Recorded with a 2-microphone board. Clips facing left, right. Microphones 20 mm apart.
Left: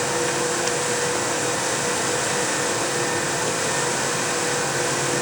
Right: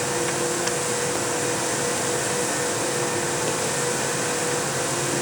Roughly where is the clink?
No clink in this recording.